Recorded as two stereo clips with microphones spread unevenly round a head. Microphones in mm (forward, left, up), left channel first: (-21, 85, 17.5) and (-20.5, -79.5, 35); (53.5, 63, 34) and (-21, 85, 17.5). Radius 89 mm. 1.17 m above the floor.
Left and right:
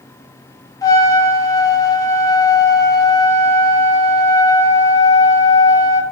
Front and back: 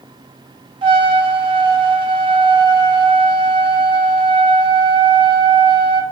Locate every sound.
0.8 s a trumpet: 160° left, 0.5 m